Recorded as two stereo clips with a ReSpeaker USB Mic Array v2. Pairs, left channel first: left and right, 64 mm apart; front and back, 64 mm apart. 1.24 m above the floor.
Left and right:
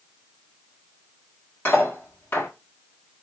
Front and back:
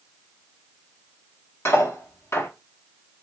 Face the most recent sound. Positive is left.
turn(degrees=45)